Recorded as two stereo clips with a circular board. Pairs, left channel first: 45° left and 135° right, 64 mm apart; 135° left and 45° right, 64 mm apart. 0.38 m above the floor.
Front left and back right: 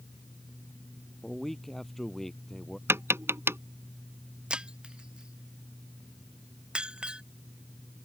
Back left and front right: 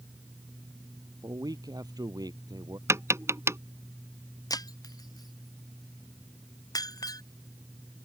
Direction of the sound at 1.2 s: 40° right.